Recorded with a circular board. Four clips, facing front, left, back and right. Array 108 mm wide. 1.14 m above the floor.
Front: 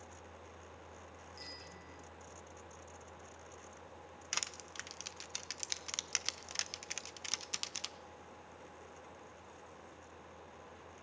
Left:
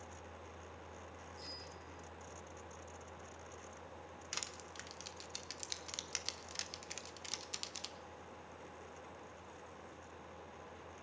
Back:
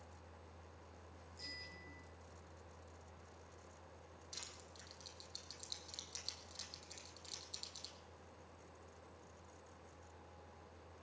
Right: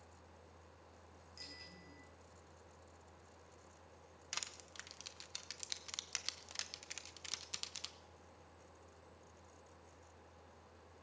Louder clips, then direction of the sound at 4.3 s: Even, front 11 dB; straight ahead.